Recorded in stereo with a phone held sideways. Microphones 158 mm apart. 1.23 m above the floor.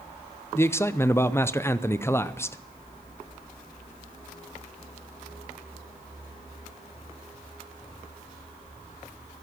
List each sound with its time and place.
0.6 s a man speaking: 15° left (ahead or behind), 0.6 m